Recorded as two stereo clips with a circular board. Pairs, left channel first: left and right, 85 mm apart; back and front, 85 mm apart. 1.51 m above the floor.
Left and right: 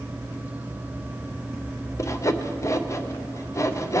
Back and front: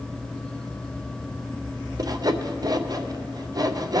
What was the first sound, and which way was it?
Sawing, 40° left.